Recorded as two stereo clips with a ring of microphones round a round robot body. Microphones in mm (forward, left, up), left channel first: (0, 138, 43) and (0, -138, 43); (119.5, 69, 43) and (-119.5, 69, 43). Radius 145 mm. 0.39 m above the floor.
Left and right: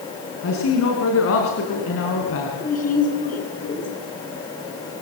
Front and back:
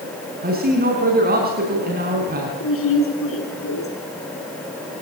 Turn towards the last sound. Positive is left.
turn(degrees=30)